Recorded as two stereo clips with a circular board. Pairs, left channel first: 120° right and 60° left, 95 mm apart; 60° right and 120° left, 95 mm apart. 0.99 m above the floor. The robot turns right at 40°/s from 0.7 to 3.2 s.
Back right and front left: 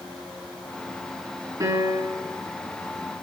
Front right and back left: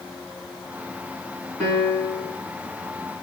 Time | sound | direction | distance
1.6 | a piano | 10° left | 3.5 m